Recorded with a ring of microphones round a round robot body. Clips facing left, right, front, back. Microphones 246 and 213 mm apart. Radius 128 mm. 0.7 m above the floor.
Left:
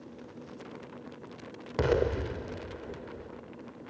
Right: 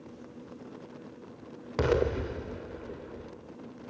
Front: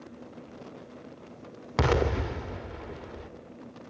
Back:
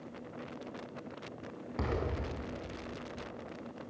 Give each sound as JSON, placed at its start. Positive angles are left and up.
{"t": 1.8, "sound": "an explosion", "azimuth_deg": -5, "distance_m": 0.8}